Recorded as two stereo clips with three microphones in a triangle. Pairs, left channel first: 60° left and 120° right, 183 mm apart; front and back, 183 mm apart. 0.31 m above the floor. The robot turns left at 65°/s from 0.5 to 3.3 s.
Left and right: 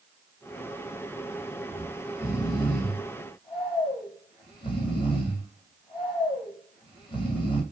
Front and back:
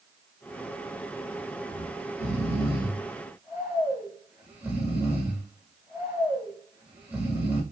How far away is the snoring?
About 1.4 m.